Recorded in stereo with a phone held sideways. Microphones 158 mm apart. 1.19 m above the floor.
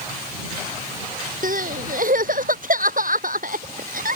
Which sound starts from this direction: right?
Crying, at 1.4 s.